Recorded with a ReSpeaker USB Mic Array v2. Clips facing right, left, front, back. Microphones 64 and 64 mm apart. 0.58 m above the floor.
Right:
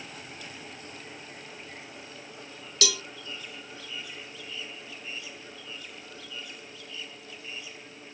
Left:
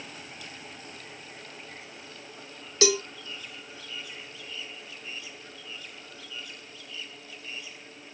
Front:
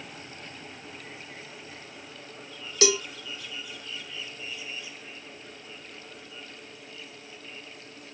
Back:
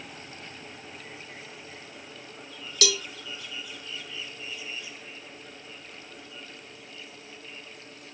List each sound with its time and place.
2.8 s a cowbell: 45° left, 0.6 m